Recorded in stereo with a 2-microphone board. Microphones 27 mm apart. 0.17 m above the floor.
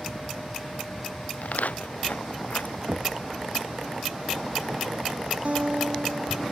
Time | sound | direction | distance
1.4 | footsteps | 75° left (ahead or behind) | ?
2.9 | knocking | 50° right (ahead or behind) | ?
5.5 | a guitar | 50° right (ahead or behind) | ?